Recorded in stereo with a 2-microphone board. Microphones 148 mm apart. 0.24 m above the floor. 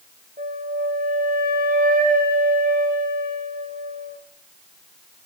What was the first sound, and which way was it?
A flute, 70° right (ahead or behind).